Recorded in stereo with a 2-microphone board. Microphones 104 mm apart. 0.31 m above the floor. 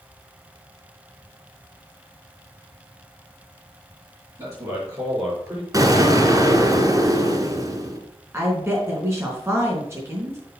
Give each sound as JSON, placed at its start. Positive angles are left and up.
{"t": 4.4, "sound": "a man speaking", "side_deg": -35, "distance_m": 5.5}
{"t": 5.7, "sound": "an explosion", "side_deg": -35, "distance_m": 1.7}
{"t": 8.3, "sound": "a woman speaking", "side_deg": -25, "distance_m": 4.0}